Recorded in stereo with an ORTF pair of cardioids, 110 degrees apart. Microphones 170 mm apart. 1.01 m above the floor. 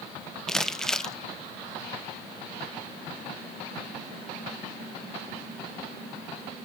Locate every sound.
0.5 s crumpling: 5° left, 0.6 m